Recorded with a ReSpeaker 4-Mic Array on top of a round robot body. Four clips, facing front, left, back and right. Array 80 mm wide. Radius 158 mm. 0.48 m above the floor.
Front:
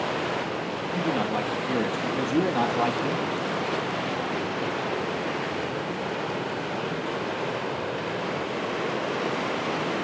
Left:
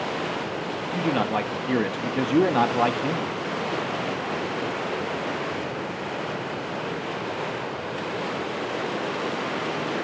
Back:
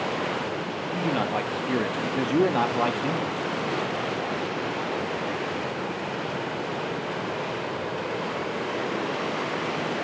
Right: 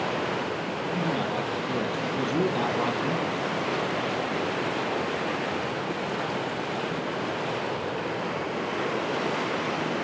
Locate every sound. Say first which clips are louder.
0.9 s a man speaking: left 5 dB, even; 110° left, 0.8 m